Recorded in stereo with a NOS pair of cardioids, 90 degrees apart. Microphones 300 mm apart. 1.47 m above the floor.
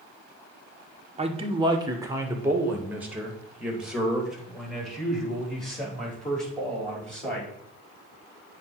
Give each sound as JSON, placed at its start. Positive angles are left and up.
{"t": 1.2, "sound": "a man speaking", "azimuth_deg": -20, "distance_m": 1.1}